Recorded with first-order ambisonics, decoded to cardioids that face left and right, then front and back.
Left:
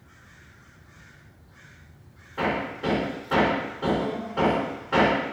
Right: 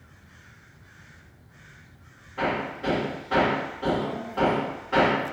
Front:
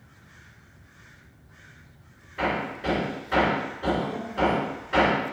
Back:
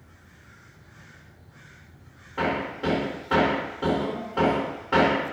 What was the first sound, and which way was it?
Hammering, 170° left.